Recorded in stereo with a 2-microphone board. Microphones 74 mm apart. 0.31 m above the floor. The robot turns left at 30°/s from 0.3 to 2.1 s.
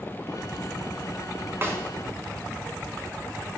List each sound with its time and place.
1.6 s a snare drum: 35° right (ahead or behind), 1.3 m; by 1.8 s 40° right (ahead or behind), 1.3 m